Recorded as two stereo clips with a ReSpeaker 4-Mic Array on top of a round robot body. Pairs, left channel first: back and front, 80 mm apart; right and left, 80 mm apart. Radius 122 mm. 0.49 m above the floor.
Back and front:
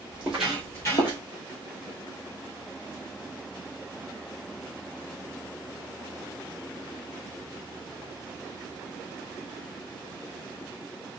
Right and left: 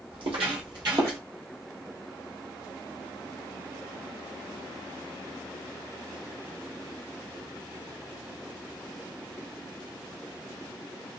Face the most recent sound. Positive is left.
turn(degrees=155)